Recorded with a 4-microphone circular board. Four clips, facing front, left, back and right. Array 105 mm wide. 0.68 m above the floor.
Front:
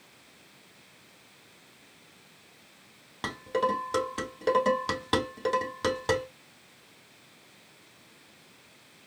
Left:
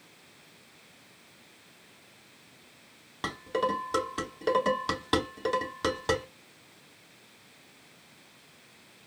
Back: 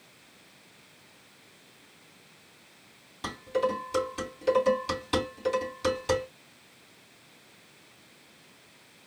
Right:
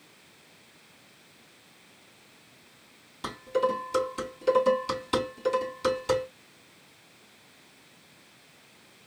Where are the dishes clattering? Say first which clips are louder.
Right 2 dB, even; 45° left, 3.5 m.